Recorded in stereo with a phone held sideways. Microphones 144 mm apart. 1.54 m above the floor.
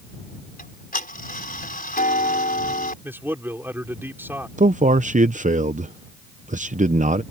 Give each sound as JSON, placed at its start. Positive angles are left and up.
{"t": 0.6, "sound": "ticking", "side_deg": 85}
{"t": 3.0, "sound": "a man speaking", "side_deg": -15}
{"t": 4.6, "sound": "a man speaking", "side_deg": -60}